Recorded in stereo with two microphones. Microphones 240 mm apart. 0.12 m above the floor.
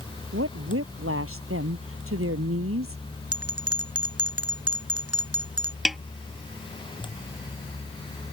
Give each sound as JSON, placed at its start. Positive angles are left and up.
{"t": 0.3, "sound": "a woman speaking", "side_deg": -65}
{"t": 3.3, "sound": "a bell", "side_deg": -80}
{"t": 5.8, "sound": "a snare drum", "side_deg": 0}